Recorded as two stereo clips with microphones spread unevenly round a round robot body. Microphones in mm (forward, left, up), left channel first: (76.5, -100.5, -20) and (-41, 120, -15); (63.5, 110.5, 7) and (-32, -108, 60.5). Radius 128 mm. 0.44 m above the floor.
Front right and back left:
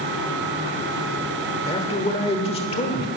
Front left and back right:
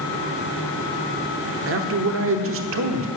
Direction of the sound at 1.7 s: 120° right.